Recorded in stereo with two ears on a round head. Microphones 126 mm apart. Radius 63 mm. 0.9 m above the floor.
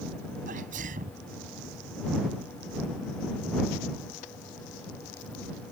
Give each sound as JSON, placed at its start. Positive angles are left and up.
{"t": 0.5, "sound": "a sneeze", "side_deg": -65}